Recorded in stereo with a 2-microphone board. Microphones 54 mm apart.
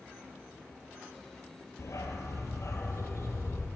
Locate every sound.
1.8 s a dog barking: 65° left (ahead or behind), 1.5 m; by 3.7 s 55° left (ahead or behind), 2 m